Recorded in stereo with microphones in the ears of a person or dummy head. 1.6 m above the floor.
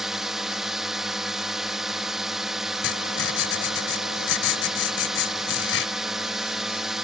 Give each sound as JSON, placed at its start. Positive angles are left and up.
{"t": 0.0, "sound": "a drone", "side_deg": 0}
{"t": 2.8, "sound": "writing", "side_deg": 80}